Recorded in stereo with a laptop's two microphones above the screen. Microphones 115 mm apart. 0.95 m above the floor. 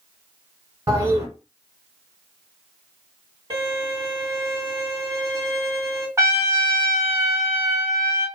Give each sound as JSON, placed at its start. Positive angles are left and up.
{"t": 0.9, "sound": "a toilet flushing", "side_deg": -30, "distance_m": 1.4}
{"t": 3.5, "sound": "a violin", "side_deg": -40, "distance_m": 1.5}
{"t": 6.2, "sound": "a trumpet", "side_deg": -25, "distance_m": 0.9}